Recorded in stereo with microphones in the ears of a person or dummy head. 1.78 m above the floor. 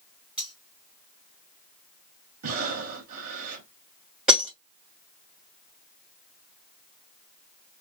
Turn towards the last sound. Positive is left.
turn(degrees=-5)  # may be behind; listen again after turning